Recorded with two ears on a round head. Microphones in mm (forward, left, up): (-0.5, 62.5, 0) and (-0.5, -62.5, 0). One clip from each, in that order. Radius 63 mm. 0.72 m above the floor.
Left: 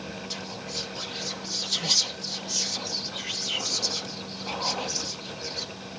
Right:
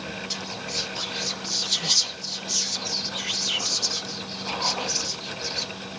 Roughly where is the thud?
I don't hear a thud.